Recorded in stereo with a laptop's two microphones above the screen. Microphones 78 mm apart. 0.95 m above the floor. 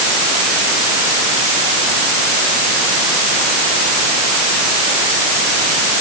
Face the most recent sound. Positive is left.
No sound to turn to.